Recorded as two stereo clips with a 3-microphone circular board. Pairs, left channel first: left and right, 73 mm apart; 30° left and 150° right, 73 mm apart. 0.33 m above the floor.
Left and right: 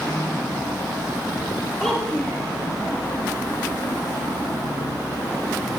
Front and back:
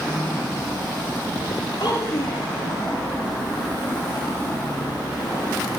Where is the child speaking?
5° left, 7 m.